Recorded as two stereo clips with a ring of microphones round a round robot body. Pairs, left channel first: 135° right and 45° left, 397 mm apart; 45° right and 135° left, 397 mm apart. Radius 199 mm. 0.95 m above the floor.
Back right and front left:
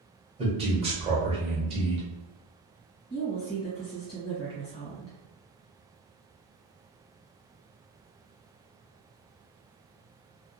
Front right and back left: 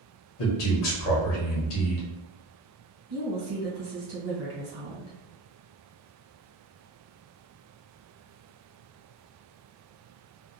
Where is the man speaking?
30° right, 1.0 m.